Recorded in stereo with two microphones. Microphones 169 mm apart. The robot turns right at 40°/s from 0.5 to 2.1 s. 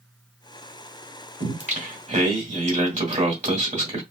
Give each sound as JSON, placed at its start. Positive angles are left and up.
{"t": 1.4, "sound": "singing", "side_deg": -45, "distance_m": 2.0}